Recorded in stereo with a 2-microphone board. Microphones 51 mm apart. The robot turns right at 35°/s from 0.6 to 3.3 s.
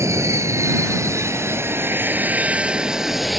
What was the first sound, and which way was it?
An aircraft, 95° right.